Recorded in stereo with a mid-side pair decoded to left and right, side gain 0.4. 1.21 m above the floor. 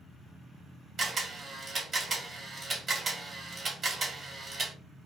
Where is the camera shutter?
45° right, 1.2 m.